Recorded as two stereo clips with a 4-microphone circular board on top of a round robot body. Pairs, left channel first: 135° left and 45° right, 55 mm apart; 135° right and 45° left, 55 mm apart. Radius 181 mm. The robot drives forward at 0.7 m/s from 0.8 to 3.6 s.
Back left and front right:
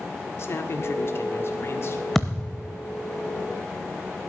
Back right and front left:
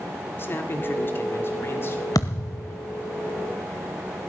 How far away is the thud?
About 0.5 m.